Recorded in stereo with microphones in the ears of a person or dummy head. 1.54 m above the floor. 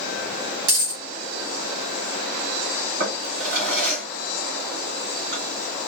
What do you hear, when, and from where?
0.7 s a dropped coin: 55° right (ahead or behind), 1.6 m
3.0 s a drawer: 60° right (ahead or behind), 1.9 m